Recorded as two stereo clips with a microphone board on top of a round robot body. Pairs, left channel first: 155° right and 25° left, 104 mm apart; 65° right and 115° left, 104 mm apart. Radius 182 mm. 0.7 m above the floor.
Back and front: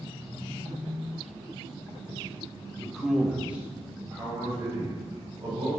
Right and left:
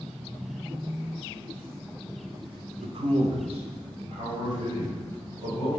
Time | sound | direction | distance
2.8 | a man speaking | 120° left | 0.7 m